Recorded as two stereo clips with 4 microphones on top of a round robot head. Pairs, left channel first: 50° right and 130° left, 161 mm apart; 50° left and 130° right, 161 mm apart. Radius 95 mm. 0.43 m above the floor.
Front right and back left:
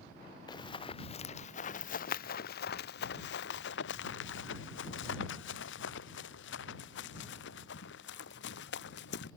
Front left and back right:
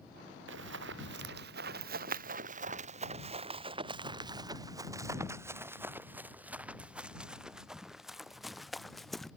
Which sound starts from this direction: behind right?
Running footsteps, at 0.5 s.